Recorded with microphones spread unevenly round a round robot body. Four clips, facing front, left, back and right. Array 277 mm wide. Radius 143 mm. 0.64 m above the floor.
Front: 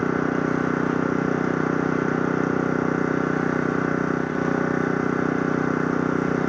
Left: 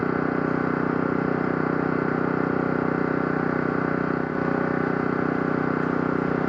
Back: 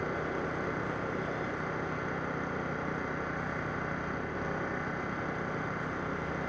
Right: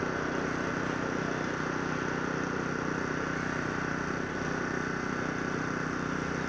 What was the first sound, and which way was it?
An engine running, 35° left.